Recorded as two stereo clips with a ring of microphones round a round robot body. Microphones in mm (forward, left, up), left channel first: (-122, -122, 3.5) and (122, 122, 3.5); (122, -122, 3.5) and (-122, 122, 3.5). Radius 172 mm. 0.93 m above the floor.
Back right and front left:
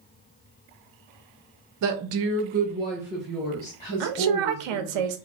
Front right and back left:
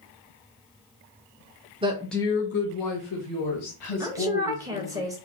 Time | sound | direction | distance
1.8 | a woman speaking | 65° left | 0.6 m
4.0 | a woman speaking | 55° left | 0.5 m